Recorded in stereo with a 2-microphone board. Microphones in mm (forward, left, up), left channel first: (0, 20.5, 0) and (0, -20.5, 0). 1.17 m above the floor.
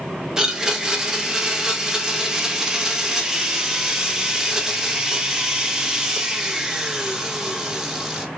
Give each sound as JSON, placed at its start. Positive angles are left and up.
{"t": 0.4, "sound": "a blender", "side_deg": -10, "distance_m": 0.5}